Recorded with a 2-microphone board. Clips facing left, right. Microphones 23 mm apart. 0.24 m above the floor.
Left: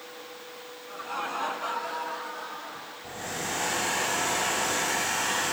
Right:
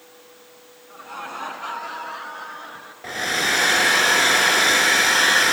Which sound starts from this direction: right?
A hair dryer, at 3.0 s.